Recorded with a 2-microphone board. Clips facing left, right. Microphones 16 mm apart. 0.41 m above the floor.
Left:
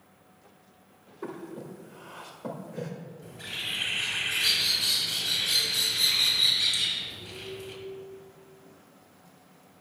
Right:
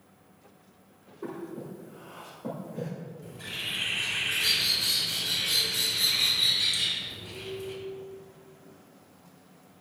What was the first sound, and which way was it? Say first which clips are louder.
Breathing: right 1 dB; 30° left (ahead or behind).